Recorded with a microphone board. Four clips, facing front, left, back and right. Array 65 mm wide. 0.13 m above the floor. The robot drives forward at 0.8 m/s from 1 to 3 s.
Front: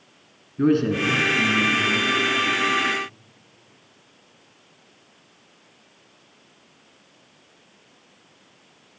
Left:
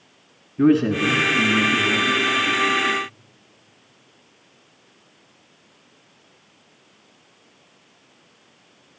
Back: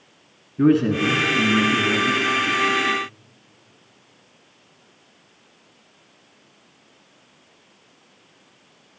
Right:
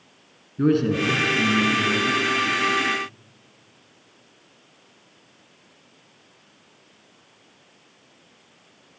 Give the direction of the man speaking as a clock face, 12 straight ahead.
8 o'clock.